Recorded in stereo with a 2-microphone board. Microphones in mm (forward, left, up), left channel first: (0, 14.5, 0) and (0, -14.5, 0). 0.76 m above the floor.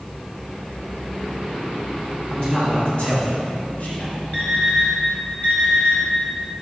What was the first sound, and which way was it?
A man speaking, 25° left (ahead or behind).